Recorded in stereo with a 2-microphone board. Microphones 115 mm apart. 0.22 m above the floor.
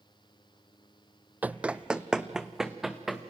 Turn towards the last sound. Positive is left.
turn(degrees=0)  # may be behind; listen again after turning